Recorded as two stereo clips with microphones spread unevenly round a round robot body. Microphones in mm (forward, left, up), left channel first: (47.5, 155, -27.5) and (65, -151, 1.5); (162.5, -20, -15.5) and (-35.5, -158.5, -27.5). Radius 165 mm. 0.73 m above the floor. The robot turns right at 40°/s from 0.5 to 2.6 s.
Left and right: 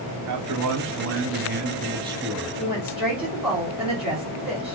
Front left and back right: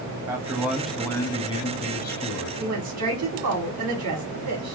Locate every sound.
0.3 s a man speaking: 70° right, 1.0 m; by 2.5 s 10° left, 1.0 m
2.6 s a woman speaking: 175° right, 1.8 m